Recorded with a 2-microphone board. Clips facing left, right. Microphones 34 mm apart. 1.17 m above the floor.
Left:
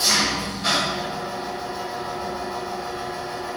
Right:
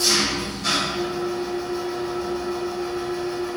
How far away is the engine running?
About 1.7 m.